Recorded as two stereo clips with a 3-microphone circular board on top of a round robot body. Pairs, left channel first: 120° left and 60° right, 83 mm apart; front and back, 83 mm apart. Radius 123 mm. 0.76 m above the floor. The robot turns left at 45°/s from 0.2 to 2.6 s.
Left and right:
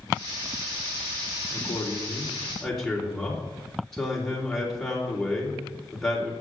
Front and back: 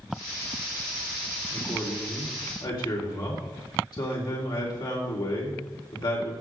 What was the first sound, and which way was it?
A man speaking, 85° left.